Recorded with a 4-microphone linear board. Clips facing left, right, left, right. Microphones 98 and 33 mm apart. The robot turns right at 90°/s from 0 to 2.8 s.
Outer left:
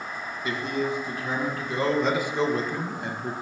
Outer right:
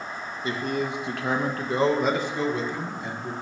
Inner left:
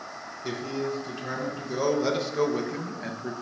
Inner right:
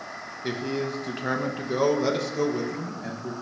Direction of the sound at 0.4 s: 150° right.